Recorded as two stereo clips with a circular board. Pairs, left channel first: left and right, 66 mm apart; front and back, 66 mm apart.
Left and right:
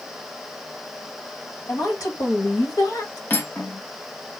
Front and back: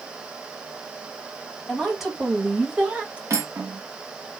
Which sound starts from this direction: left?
A woman speaking, at 1.7 s.